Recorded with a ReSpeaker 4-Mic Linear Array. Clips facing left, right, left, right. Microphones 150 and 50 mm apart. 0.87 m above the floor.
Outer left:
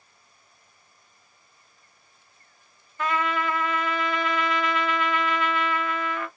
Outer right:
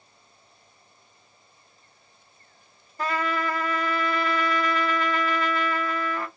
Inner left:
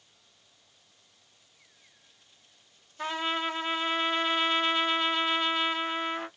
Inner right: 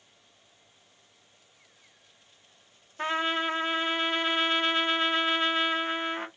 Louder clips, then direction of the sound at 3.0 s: Outer left 1 dB, inner right 3 dB; 35° right (ahead or behind).